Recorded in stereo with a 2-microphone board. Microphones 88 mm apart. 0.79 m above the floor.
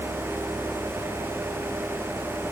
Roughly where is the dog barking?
I don't hear a dog barking.